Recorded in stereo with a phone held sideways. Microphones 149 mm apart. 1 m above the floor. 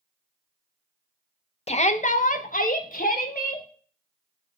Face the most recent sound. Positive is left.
turn(degrees=75)  # may be behind; listen again after turning